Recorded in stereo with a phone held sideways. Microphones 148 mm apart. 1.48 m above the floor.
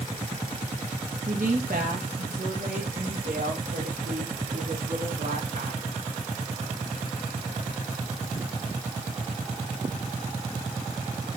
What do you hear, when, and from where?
1.3 s a woman speaking: 60° right (ahead or behind), 1.7 m; by 5.8 s 75° right (ahead or behind), 4 m